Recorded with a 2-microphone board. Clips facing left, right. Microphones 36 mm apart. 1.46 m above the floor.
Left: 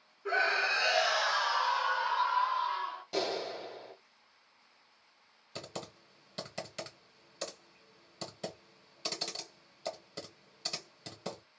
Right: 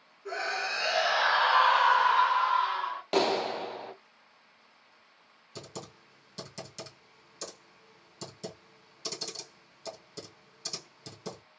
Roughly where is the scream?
Left.